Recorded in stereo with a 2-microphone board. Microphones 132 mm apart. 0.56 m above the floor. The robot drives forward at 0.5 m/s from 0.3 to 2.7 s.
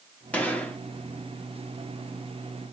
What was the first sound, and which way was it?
A gunshot, 10° left (ahead or behind).